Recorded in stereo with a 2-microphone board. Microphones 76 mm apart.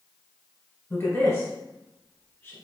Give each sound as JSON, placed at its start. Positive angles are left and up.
{"t": 0.9, "sound": "a woman speaking", "side_deg": 35, "distance_m": 1.9}